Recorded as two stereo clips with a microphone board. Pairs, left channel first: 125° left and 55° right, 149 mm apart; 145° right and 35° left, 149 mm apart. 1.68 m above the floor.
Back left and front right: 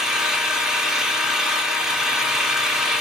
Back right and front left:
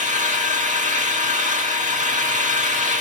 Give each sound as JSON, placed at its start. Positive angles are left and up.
{"t": 0.0, "sound": "an engine running", "azimuth_deg": 30, "distance_m": 1.7}